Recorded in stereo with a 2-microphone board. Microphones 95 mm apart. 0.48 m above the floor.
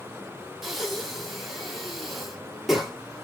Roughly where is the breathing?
Centre.